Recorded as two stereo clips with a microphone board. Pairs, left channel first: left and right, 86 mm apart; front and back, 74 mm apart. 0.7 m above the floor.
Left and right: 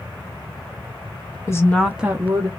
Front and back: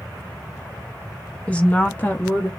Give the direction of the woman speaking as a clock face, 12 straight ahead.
10 o'clock.